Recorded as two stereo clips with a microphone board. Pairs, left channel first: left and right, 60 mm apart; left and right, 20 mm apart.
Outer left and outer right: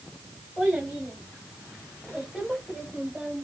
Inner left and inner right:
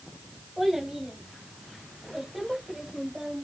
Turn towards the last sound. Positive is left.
turn(degrees=0)  # may be behind; listen again after turning